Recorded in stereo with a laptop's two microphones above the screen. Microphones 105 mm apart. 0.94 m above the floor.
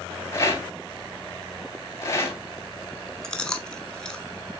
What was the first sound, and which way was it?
A rattle, 30° left (ahead or behind).